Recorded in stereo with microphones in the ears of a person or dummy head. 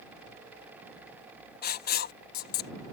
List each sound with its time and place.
1.6 s writing: 55° left (ahead or behind)